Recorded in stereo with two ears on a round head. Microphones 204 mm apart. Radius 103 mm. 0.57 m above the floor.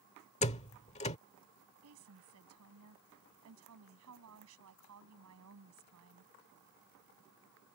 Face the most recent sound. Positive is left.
turn(degrees=-80)